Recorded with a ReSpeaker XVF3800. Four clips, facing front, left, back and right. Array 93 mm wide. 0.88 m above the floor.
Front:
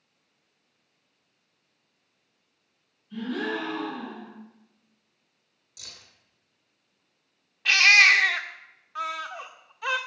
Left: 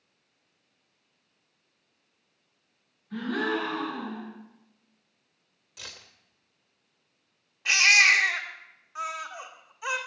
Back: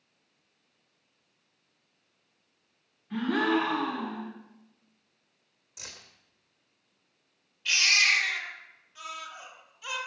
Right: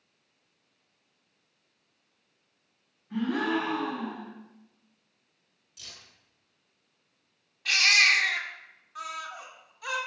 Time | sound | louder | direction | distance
3.1 | a gasp | right 1 dB, back 4 dB | 165° right | 7.5 m
5.8 | keys jangling | left 5 dB, back 3 dB | 120° left | 2.5 m
7.7 | a baby crying | left 3 dB, front 8 dB | 20° left | 1.9 m